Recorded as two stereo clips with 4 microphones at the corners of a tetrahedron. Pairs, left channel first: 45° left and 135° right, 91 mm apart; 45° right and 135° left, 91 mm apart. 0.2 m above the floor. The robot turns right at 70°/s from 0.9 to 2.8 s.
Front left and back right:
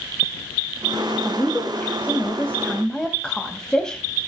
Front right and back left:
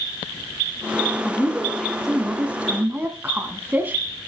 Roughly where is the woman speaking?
Ahead.